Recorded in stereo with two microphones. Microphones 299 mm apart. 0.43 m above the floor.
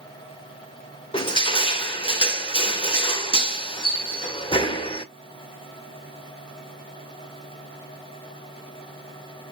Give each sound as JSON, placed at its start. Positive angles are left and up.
{"t": 1.1, "sound": "crushing", "side_deg": 15, "distance_m": 1.1}